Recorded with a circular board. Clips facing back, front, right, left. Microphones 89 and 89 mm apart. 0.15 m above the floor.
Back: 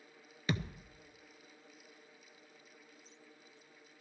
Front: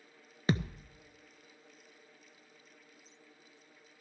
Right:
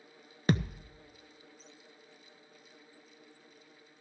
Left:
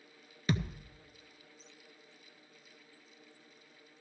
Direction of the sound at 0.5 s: 50° right.